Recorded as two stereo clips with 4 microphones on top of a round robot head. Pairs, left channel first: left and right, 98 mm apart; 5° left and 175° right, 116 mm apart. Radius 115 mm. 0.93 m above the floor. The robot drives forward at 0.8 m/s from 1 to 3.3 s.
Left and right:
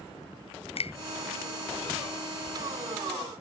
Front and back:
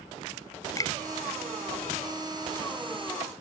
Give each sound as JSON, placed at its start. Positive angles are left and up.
{"t": 0.8, "sound": "a finger snap", "azimuth_deg": 70}